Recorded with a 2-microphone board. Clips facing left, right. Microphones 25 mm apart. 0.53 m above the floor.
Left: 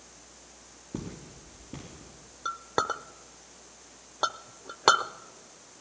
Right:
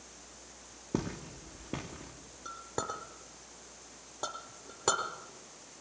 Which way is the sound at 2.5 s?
50° left (ahead or behind).